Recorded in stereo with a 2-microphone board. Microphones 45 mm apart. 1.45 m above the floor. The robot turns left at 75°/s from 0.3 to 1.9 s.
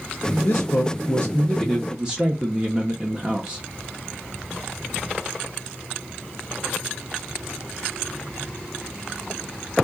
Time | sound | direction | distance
0.4 | a man speaking | 95° left | 0.8 m